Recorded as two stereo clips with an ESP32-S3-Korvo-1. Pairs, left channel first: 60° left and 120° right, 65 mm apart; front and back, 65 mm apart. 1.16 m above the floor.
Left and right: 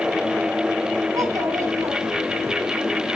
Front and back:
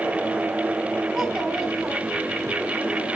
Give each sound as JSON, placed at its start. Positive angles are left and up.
{"t": 1.1, "sound": "a child speaking", "azimuth_deg": -105, "distance_m": 4.5}